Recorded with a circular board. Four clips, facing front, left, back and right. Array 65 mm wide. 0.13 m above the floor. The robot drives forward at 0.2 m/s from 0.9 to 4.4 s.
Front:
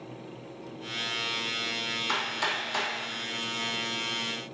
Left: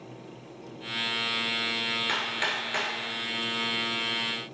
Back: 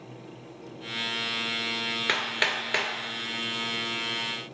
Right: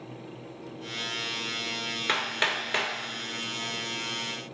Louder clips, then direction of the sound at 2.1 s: Right 5 dB, back 2 dB; 160° right.